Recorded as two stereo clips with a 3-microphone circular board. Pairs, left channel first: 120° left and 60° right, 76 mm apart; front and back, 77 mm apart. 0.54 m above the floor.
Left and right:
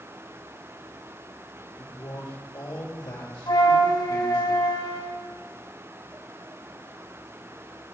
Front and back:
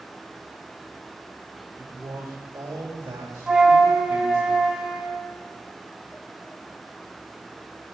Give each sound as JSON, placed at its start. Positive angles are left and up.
{"t": 1.8, "sound": "a man speaking", "azimuth_deg": 130, "distance_m": 1.9}
{"t": 3.5, "sound": "a flute", "azimuth_deg": 100, "distance_m": 1.1}